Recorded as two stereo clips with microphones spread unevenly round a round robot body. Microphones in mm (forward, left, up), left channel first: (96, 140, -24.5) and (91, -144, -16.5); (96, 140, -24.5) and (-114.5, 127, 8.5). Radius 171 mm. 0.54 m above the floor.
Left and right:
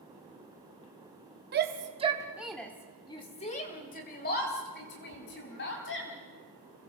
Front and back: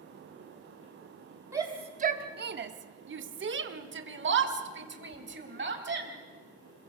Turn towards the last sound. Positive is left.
turn(degrees=150)